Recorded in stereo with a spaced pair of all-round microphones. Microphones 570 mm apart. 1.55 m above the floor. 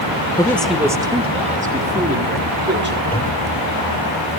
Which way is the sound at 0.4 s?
10° left (ahead or behind).